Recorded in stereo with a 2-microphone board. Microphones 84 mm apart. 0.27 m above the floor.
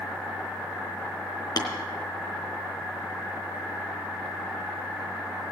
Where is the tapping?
60° left (ahead or behind), 3.5 m.